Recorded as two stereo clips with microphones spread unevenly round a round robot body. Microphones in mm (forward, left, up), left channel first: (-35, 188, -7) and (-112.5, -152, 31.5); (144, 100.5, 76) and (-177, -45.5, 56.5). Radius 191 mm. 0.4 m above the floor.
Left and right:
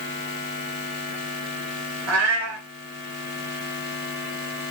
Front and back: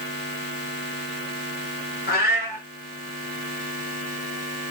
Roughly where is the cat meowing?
Ahead right.